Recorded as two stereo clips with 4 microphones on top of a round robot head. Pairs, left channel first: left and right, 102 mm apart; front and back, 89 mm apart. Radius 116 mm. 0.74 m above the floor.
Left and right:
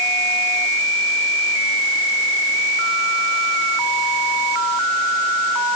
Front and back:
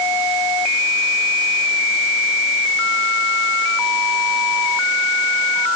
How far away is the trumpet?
I don't hear a trumpet.